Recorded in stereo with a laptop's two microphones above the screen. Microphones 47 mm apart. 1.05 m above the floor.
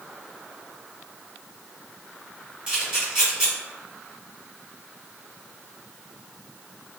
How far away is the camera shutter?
About 1.8 m.